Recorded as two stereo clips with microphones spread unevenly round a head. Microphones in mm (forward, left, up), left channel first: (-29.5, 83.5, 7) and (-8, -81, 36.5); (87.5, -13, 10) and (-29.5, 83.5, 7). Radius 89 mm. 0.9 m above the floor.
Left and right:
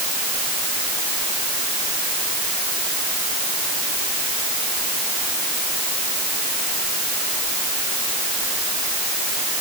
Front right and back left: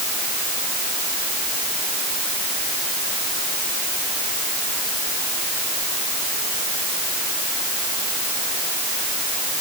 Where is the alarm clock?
No alarm clock in this recording.